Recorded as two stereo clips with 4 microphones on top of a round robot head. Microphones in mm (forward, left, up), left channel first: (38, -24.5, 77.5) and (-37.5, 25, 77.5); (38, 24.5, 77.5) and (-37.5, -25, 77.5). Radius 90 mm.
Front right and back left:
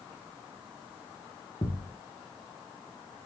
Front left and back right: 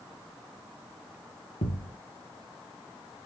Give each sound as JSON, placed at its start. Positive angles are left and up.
{"t": 1.6, "sound": "a thud", "azimuth_deg": 20, "distance_m": 0.9}